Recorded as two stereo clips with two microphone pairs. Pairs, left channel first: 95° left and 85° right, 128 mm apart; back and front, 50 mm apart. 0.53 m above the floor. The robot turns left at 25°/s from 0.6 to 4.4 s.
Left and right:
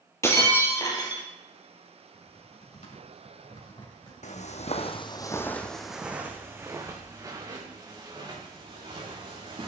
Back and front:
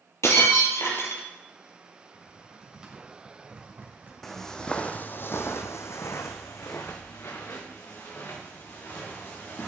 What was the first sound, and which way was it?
Breaking glass, 165° left.